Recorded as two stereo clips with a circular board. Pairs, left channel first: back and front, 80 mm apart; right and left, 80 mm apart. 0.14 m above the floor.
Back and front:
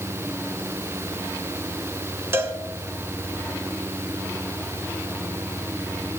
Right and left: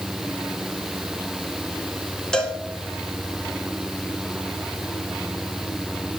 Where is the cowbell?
15° right, 1.2 m.